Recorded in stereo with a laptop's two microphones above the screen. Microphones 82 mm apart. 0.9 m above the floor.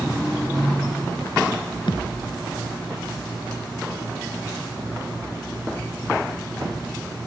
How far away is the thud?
About 3 m.